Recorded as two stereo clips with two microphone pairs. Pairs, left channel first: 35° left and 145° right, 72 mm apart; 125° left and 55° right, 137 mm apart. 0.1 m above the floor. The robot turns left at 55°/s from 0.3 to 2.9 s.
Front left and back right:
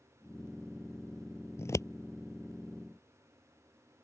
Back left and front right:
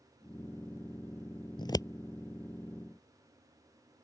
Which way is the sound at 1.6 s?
75° left.